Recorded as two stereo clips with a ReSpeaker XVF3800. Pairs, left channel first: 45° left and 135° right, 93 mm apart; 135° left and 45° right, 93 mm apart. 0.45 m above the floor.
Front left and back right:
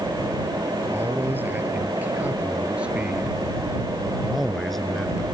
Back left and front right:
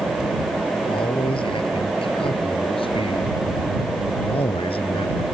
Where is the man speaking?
160° left; by 5.3 s 125° left.